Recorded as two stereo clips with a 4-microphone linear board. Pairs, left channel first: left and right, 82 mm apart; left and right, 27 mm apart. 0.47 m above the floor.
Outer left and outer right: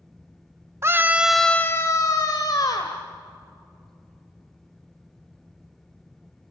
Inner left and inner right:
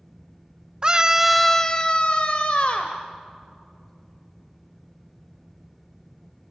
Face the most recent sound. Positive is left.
turn(degrees=60)  # may be behind; listen again after turning